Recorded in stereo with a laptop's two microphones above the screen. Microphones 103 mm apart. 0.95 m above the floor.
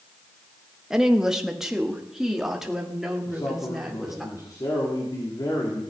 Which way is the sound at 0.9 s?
5° right (ahead or behind).